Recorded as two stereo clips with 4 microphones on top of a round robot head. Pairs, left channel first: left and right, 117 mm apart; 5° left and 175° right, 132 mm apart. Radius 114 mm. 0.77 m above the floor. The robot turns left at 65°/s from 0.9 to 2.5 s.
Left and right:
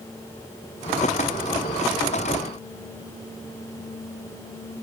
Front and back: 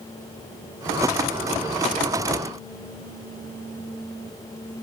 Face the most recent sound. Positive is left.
No sound to turn to.